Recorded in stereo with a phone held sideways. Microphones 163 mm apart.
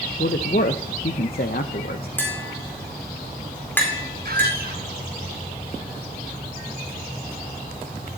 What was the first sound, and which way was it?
A man speaking, 65° left (ahead or behind).